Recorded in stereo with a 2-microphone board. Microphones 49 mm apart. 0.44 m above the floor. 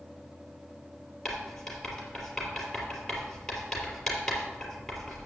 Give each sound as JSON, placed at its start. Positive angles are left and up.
{"t": 1.2, "sound": "writing", "side_deg": 5, "distance_m": 3.0}